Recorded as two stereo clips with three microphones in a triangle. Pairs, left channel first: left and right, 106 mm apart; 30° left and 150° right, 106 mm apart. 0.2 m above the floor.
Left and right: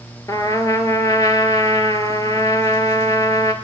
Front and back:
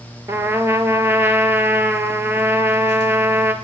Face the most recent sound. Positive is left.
turn(degrees=150)